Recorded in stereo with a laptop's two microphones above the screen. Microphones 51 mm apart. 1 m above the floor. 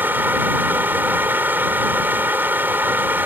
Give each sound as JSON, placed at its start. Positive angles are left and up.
{"t": 0.0, "sound": "a fan", "side_deg": -35}